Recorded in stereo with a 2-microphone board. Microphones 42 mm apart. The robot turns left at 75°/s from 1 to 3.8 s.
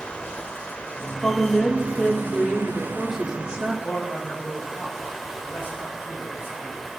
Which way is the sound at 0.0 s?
30° left.